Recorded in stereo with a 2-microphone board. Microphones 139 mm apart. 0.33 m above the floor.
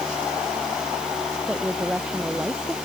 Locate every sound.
1.4 s a woman speaking: 10° right (ahead or behind); by 2.8 s 5° right (ahead or behind)